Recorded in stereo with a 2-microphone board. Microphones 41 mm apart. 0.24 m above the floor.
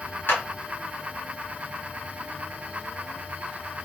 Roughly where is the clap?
Left.